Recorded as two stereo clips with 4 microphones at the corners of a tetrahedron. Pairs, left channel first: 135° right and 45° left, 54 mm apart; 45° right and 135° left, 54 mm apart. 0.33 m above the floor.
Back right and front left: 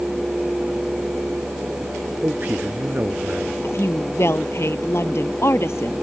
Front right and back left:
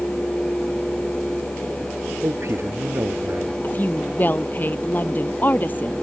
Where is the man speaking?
100° left.